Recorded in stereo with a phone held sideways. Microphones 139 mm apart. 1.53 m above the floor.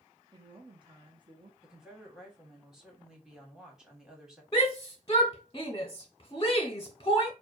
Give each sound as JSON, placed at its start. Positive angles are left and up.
{"t": 0.3, "sound": "a woman speaking", "side_deg": -35, "distance_m": 1.0}
{"t": 1.6, "sound": "a woman speaking", "side_deg": -5, "distance_m": 1.9}
{"t": 4.5, "sound": "a shout", "side_deg": 30, "distance_m": 0.7}